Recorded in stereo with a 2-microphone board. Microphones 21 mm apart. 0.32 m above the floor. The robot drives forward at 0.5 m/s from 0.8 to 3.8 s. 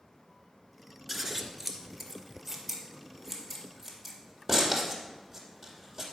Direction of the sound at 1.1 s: 5° left (ahead or behind).